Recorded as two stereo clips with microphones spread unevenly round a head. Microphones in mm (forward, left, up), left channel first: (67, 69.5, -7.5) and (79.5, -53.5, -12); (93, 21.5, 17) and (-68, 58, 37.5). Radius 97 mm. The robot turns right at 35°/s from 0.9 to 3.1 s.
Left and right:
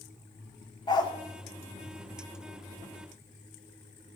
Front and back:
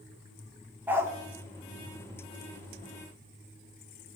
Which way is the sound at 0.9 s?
105° left.